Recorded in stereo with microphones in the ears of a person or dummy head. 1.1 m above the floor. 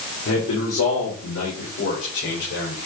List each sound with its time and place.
0.2 s a man speaking: 85° left, 3.5 m; by 2.9 s 70° left (ahead or behind), 5 m